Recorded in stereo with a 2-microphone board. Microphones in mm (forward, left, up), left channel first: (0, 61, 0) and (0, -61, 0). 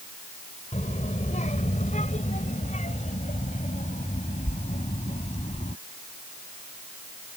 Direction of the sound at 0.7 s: 70° left (ahead or behind).